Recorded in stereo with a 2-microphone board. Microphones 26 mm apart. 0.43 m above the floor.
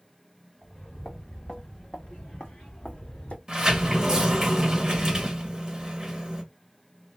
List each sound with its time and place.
0.6 s footsteps: 15° left (ahead or behind), 2 m; by 3.4 s 60° left (ahead or behind), 1.4 m
3.5 s a sliding door: 25° right (ahead or behind), 1.8 m